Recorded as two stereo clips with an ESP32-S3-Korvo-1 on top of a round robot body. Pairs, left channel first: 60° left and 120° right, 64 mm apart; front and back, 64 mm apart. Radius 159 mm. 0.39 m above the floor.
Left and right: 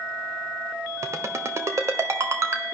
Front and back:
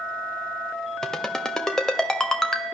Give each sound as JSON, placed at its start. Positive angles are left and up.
{"t": 1.0, "sound": "a ringtone", "azimuth_deg": -80, "distance_m": 1.7}